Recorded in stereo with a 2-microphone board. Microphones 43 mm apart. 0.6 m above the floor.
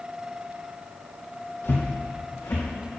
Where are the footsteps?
65° left (ahead or behind), 1.4 m; by 2.6 s 80° left, 3 m.